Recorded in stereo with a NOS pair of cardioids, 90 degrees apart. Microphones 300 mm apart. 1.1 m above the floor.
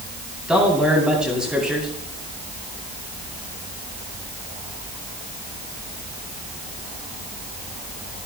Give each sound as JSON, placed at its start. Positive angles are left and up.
{"t": 0.5, "sound": "a man speaking", "azimuth_deg": 0, "distance_m": 9.0}